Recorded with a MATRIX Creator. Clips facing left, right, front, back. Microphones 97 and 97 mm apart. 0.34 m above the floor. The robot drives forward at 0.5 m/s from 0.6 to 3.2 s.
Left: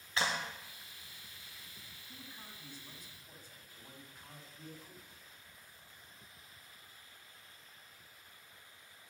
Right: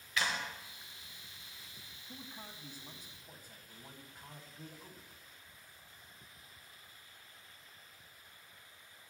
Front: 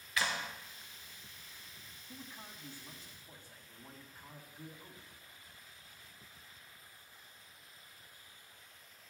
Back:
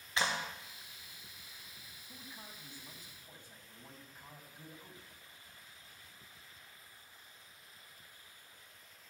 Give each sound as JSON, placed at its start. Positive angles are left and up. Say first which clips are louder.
{"t": 0.2, "sound": "a clap", "louder": "left 1 dB, back 1 dB", "azimuth_deg": 130, "distance_m": 1.0}
{"t": 2.1, "sound": "a man speaking", "louder": "right 4 dB, front 2 dB", "azimuth_deg": -95, "distance_m": 2.0}